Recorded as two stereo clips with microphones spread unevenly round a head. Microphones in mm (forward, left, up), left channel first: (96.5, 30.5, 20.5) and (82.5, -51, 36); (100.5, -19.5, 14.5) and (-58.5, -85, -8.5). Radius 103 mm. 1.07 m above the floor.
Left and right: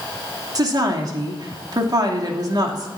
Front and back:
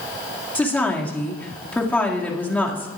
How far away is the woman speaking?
About 2.5 m.